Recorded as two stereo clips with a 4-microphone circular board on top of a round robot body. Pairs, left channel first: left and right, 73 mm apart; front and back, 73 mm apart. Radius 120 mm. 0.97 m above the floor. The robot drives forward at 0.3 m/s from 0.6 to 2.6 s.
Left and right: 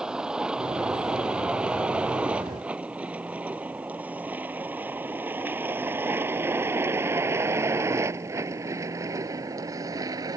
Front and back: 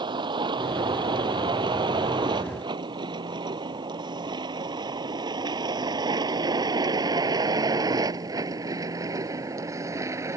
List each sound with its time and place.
0.0 s a vehicle: 170° right; by 10.4 s 130° right